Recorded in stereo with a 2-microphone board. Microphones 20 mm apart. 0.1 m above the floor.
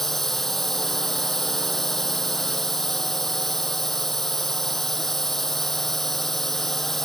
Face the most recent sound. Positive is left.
turn(degrees=15)  # may be behind; listen again after turning